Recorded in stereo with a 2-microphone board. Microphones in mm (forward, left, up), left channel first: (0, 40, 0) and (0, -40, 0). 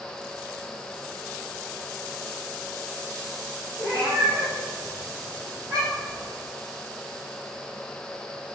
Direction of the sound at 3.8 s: 60° right (ahead or behind).